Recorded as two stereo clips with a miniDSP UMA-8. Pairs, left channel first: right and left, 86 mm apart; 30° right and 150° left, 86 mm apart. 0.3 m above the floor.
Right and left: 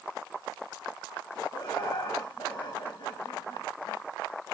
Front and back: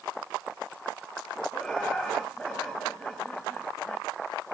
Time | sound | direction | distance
1.5 | laughter | 115° right | 4.5 m